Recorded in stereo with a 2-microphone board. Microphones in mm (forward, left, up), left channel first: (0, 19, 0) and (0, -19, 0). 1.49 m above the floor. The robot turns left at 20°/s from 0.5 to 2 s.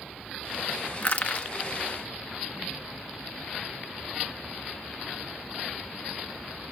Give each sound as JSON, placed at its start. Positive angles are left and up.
{"t": 1.0, "sound": "crushing", "side_deg": 40, "distance_m": 1.1}